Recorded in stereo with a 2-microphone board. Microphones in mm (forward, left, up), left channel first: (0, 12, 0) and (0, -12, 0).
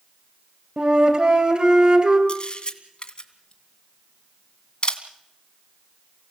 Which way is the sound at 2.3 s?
45° left (ahead or behind).